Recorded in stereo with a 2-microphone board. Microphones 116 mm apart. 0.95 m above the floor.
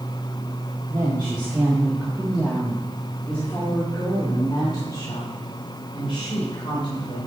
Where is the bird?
No bird in this recording.